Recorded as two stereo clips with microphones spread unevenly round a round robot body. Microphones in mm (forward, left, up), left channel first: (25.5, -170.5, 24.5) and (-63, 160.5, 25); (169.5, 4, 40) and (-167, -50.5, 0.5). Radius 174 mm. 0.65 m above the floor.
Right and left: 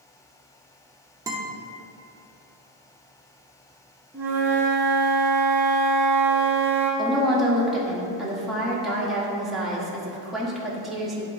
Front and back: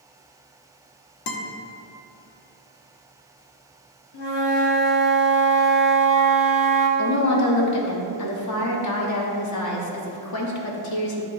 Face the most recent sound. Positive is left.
turn(degrees=15)